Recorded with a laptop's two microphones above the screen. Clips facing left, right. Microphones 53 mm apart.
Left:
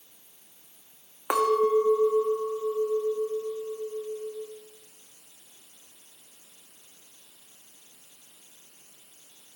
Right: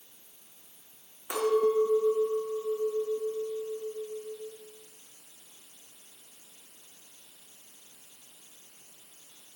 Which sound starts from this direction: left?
A clink, at 1.3 s.